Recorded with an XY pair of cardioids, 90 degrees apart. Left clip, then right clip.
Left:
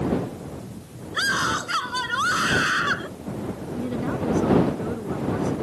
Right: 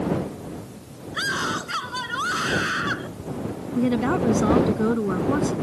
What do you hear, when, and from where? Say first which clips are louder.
1.1 s a scream: left 3 dB; 25° left; by 3.1 s 30° left
3.8 s a woman speaking: right 7 dB; 65° right